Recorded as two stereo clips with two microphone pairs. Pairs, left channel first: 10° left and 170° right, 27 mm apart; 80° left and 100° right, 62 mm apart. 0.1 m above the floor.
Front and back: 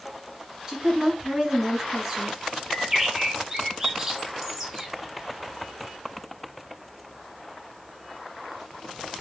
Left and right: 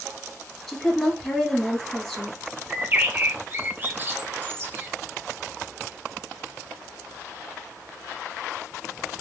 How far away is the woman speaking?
About 1.6 m.